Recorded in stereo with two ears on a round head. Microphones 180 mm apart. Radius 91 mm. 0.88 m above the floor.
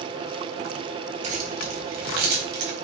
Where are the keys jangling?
40° right (ahead or behind), 3.5 m; by 2.8 s 60° right (ahead or behind), 4 m.